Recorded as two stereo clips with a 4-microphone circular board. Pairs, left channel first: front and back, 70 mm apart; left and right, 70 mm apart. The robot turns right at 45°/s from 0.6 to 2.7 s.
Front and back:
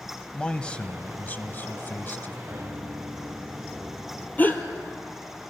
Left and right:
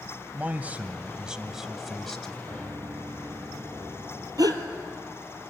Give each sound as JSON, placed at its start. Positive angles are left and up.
{"t": 0.3, "sound": "a man speaking", "azimuth_deg": -55, "distance_m": 1.0}
{"t": 2.5, "sound": "a piano", "azimuth_deg": -120, "distance_m": 3.0}
{"t": 4.4, "sound": "a gasp", "azimuth_deg": -65, "distance_m": 1.5}